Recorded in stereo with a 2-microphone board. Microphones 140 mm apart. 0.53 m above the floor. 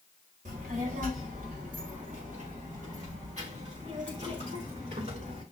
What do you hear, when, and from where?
0.5 s a child speaking: 70° right (ahead or behind), 1.8 m; by 5.4 s 55° right (ahead or behind), 4.5 m